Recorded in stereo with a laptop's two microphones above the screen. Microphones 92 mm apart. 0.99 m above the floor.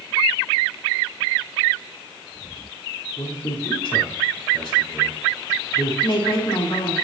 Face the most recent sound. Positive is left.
turn(degrees=55)  # may be behind; listen again after turning